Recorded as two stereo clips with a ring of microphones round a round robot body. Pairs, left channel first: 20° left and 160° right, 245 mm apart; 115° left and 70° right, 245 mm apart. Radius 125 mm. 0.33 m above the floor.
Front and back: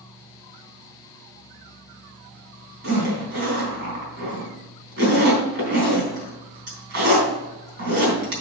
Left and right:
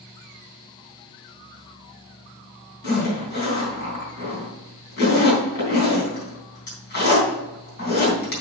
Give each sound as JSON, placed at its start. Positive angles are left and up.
{"t": 2.8, "sound": "a zipper", "azimuth_deg": 160, "distance_m": 3.5}